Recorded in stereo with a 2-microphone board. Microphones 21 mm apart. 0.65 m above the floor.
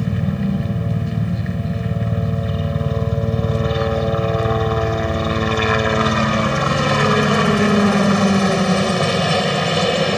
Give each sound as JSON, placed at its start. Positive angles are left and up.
{"t": 0.0, "sound": "a helicopter", "side_deg": 5}